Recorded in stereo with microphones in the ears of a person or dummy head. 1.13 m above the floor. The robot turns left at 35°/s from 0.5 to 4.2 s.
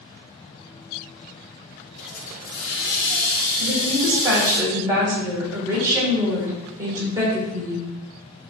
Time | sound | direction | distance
2.0 | a hiss | 100° left | 2.0 m
3.6 | a woman speaking | 35° right (ahead or behind) | 3 m